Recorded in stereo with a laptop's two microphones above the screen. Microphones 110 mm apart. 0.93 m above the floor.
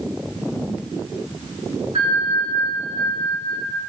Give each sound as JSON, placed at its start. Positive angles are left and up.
{"t": 1.9, "sound": "a bell", "side_deg": -70, "distance_m": 1.4}